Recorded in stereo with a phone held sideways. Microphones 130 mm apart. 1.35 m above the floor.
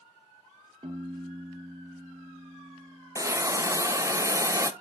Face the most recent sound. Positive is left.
turn(degrees=-25)  # may be behind; listen again after turning